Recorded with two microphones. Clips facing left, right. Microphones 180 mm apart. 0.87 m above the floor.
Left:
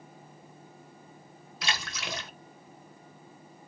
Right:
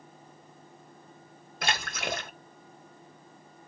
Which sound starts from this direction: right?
A splash, at 1.6 s.